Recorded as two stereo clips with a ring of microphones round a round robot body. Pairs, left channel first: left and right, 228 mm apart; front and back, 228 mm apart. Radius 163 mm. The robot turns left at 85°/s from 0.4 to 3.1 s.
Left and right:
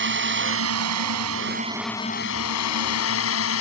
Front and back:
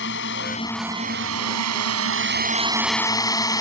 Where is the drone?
55° right; by 3.6 s 75° left.